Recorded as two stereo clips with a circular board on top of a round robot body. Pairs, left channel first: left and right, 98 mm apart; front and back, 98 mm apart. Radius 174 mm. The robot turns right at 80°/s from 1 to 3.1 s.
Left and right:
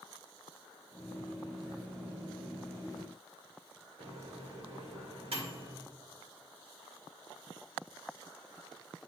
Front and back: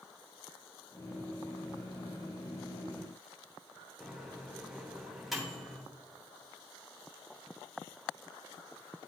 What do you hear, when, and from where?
4.0 s a microwave: 90° right, 2 m